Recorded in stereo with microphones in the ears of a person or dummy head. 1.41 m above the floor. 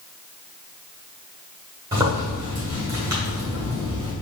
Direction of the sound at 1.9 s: 15° right (ahead or behind).